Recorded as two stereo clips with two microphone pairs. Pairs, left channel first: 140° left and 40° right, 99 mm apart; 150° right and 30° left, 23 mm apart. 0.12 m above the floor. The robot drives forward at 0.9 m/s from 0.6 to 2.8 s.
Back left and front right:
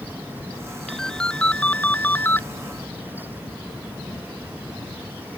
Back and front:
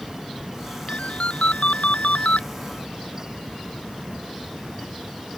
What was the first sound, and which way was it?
A ringtone, 135° right.